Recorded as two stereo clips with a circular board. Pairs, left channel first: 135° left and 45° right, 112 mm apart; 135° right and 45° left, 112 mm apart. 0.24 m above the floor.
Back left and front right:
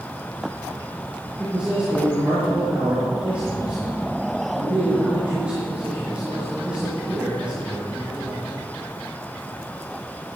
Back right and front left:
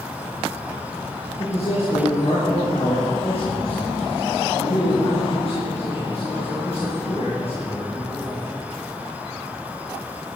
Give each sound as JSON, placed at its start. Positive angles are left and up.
{"t": 1.4, "sound": "a man speaking", "azimuth_deg": -125, "distance_m": 4.5}